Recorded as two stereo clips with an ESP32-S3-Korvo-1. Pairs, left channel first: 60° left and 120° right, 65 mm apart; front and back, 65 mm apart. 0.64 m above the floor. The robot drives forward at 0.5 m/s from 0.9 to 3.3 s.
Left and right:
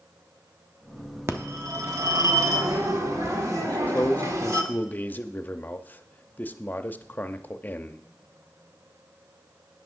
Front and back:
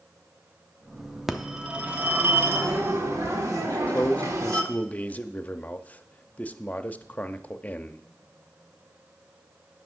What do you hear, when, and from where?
1.3 s a phone ringing: 95° right, 0.8 m; by 4.6 s 150° right, 1.3 m
3.6 s a man speaking: 35° left, 0.5 m